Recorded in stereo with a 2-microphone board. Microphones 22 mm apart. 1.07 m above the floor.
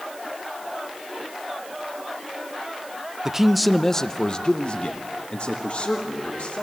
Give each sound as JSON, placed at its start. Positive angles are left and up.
{"t": 3.2, "sound": "a man speaking", "side_deg": -30, "distance_m": 0.7}